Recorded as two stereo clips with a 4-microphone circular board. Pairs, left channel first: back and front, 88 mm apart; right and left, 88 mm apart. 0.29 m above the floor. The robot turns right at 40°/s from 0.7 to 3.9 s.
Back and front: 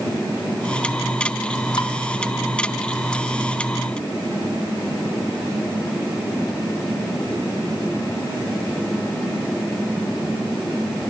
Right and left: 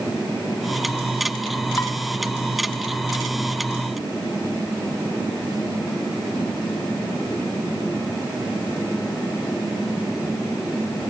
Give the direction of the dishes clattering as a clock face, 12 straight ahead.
5 o'clock.